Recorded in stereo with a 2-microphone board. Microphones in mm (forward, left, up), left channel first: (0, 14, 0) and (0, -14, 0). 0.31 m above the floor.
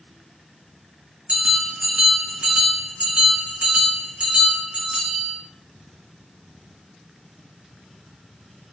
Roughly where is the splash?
No splash in this recording.